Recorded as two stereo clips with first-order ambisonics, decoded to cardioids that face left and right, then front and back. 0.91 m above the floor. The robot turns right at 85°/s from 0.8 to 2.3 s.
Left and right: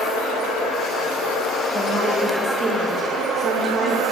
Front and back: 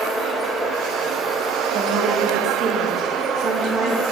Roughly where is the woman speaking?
Behind.